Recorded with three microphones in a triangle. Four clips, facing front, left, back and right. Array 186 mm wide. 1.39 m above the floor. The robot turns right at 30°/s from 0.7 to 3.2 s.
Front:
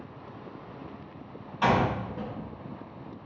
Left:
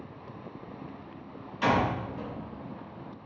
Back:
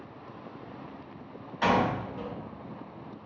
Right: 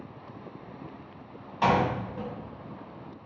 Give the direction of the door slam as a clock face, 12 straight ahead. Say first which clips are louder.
Right 2 dB, front 1 dB; 3 o'clock.